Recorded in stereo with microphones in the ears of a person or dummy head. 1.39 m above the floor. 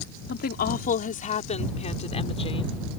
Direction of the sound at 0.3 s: 50° left (ahead or behind).